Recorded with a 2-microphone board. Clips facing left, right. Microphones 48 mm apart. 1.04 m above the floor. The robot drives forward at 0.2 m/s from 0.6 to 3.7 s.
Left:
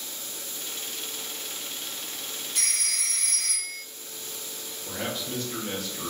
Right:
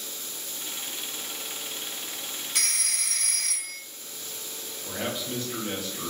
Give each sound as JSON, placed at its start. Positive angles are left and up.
{"t": 2.5, "sound": "a phone ringing", "side_deg": -70, "distance_m": 0.7}
{"t": 4.8, "sound": "a man speaking", "side_deg": -15, "distance_m": 0.7}